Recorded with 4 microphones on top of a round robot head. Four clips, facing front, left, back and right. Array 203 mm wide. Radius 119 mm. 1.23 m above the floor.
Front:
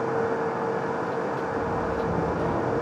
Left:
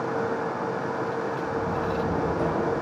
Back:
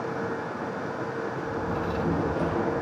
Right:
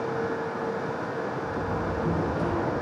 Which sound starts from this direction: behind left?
A door slam, at 1.4 s.